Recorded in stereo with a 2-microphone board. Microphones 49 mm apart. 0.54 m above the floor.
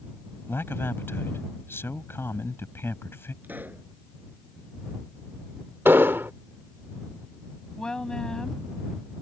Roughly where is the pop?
Right.